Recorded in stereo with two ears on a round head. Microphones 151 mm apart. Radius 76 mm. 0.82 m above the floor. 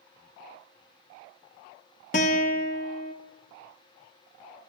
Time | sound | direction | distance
2.1 | a guitar | 40° left (ahead or behind) | 1.3 m